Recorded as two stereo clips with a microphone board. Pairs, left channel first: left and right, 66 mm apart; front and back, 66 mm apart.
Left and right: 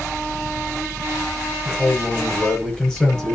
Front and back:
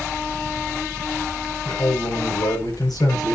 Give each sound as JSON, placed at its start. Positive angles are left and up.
{"t": 1.6, "sound": "a man speaking", "azimuth_deg": 10, "distance_m": 7.5}